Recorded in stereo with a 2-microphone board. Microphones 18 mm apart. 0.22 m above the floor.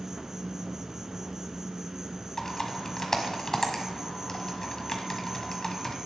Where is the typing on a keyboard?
30° left (ahead or behind), 1.5 m.